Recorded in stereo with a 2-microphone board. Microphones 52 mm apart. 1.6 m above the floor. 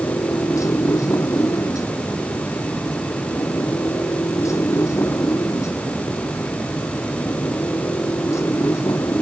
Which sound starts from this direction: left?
A motorcycle, at 0.0 s.